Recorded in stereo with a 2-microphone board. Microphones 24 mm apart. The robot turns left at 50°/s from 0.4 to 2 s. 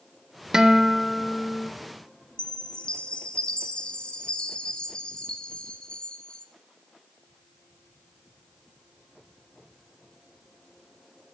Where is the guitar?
145° right, 0.9 m; by 1.7 s 155° left, 0.9 m.